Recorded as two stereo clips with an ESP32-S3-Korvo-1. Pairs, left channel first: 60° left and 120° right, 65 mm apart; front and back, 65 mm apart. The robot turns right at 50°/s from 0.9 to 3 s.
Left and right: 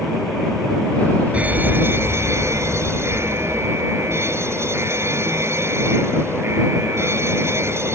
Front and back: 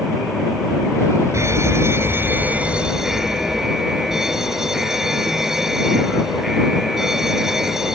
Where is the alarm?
Straight behind; by 8.0 s 100° right.